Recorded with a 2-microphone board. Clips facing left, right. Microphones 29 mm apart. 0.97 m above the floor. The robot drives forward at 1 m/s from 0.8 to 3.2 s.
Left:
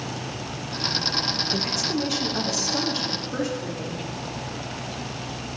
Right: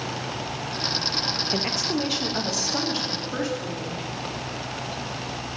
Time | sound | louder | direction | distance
1.5 | a woman speaking | even | 35° right (ahead or behind) | 0.6 m